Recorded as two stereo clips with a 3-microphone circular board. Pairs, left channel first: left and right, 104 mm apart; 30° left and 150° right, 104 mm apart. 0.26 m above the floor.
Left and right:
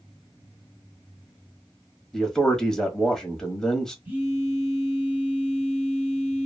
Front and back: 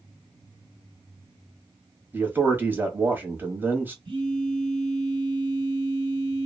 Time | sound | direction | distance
2.1 | a man speaking | 170° left | 1.0 m
4.0 | a phone buzzing | 160° right | 1.3 m